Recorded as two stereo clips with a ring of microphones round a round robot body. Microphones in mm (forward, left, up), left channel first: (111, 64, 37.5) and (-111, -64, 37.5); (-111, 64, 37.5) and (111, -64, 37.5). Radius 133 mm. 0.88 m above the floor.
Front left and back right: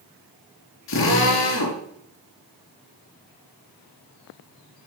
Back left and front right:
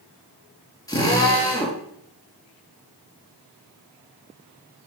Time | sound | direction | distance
0.9 | a drill | 75° left | 7 m